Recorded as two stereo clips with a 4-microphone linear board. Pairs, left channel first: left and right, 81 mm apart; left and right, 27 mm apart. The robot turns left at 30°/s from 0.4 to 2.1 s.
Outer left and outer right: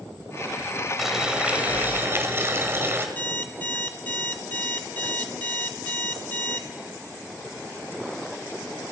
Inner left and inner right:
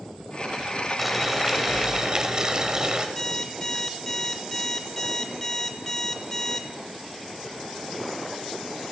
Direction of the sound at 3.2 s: 25° left (ahead or behind).